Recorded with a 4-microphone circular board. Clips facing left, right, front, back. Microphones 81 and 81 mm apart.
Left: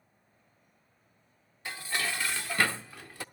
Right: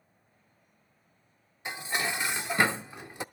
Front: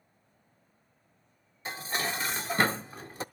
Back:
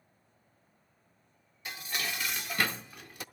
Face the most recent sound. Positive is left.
turn(degrees=-35)